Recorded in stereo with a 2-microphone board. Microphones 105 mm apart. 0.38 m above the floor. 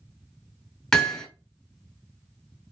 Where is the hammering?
5° left (ahead or behind), 1.5 m.